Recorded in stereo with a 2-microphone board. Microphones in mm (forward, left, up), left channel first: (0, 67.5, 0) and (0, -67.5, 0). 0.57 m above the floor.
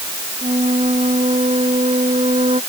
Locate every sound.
0.4 s a flute: 50° right (ahead or behind)